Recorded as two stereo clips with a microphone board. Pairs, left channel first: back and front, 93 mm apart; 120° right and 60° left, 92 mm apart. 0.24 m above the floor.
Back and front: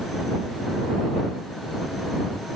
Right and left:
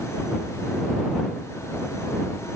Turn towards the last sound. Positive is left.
No sound to turn to.